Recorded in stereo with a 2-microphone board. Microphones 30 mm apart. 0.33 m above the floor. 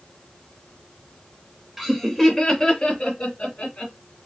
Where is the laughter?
5° right (ahead or behind), 0.9 m; by 3.9 s 30° left (ahead or behind), 1.7 m.